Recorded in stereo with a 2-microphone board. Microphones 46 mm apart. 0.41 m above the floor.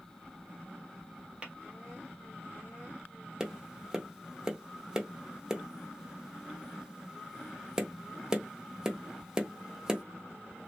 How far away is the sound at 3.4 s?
About 0.7 m.